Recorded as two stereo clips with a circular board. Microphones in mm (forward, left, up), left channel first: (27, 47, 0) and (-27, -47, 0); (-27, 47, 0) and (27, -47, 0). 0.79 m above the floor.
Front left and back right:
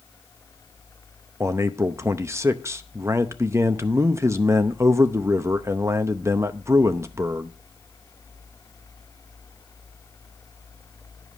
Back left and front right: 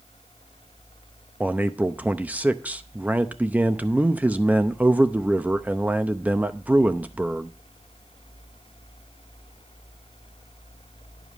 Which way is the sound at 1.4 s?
115° right.